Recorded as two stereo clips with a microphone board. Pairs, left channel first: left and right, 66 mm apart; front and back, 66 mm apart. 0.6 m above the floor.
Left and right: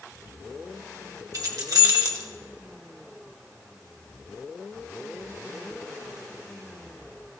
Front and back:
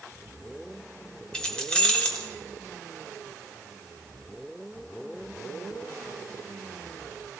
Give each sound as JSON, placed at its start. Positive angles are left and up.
{"t": 1.3, "sound": "keys jangling", "azimuth_deg": -75, "distance_m": 1.6}